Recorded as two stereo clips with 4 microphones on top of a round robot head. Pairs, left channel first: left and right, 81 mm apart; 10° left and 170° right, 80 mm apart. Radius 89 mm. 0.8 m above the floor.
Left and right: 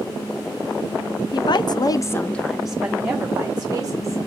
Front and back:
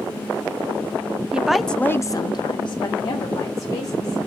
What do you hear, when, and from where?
1.3 s a woman speaking: 110° left, 0.7 m; by 4.2 s 25° right, 1.6 m